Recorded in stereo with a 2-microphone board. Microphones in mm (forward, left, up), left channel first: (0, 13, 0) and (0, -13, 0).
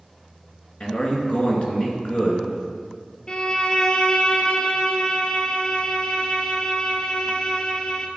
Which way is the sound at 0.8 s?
50° left (ahead or behind).